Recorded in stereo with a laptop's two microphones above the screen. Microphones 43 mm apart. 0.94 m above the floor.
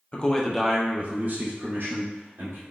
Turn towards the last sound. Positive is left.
turn(degrees=-65)  # may be behind; listen again after turning